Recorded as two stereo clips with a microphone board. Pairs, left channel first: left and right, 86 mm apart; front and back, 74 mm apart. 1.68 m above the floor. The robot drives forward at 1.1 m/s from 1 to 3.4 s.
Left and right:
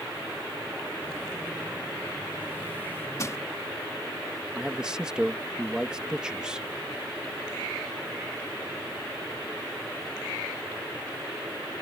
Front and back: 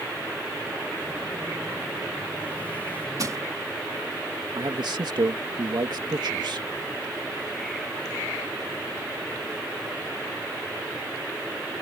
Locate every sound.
3.2 s crushing: 140° left; by 3.4 s 145° left
4.5 s a man speaking: 170° right